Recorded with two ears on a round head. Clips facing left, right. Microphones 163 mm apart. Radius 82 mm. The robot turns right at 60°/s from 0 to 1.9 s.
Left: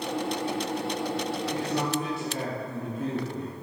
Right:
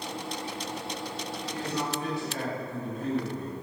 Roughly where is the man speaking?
Left.